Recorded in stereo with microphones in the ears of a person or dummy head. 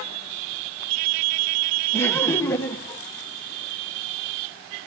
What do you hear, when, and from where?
1.9 s laughter: 15° left (ahead or behind), 1.6 m